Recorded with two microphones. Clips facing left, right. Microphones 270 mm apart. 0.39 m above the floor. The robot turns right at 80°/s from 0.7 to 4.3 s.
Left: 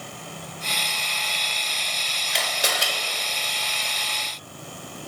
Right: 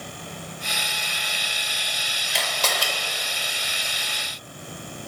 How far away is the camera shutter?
About 1.1 m.